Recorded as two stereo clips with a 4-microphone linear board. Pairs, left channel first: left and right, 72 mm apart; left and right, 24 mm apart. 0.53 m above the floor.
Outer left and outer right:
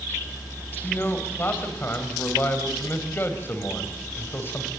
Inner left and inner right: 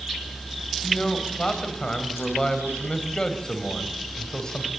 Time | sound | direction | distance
0.8 | a man speaking | 30° left (ahead or behind) | 3.5 m